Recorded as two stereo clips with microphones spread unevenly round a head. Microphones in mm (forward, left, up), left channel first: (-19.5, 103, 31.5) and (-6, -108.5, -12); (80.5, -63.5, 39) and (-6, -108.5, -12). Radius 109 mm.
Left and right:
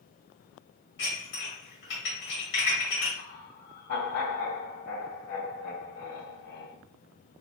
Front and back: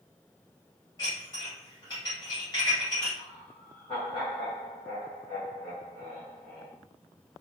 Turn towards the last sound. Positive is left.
turn(degrees=85)